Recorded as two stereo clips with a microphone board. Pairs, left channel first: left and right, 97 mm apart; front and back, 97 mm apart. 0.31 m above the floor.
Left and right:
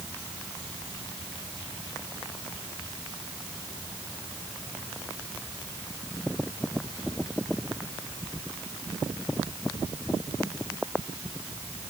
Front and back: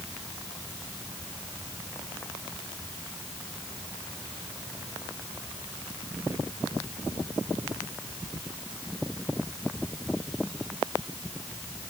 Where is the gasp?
No gasp in this recording.